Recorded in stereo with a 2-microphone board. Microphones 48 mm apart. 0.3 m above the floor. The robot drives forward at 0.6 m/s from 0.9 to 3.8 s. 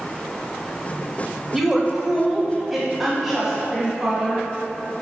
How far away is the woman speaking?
About 1.0 m.